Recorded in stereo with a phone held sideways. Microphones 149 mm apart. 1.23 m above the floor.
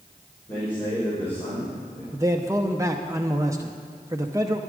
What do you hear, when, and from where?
0.5 s a man speaking: 15° left (ahead or behind), 4 m
2.1 s a man speaking: 20° right (ahead or behind), 0.6 m